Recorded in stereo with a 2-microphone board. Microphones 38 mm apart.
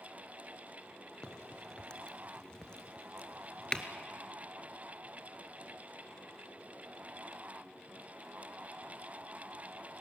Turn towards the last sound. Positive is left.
turn(degrees=20)  # may be behind; listen again after turning